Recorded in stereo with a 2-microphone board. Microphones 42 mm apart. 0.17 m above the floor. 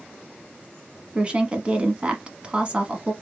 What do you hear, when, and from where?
1.1 s a woman speaking: 25° right (ahead or behind), 1.1 m